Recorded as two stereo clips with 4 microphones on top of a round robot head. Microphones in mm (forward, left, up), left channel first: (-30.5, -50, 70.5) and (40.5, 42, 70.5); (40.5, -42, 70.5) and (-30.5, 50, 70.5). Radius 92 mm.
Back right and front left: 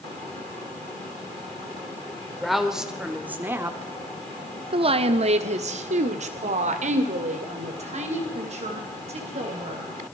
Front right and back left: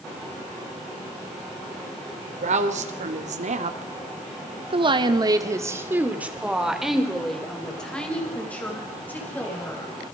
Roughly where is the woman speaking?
Behind left.